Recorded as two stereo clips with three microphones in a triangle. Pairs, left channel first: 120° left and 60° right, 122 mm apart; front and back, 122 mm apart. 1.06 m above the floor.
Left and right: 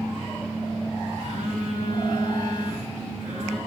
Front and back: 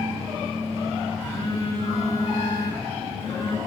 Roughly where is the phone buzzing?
Ahead right.